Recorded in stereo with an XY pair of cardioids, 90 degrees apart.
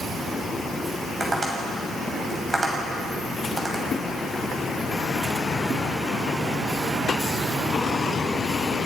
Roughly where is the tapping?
Ahead.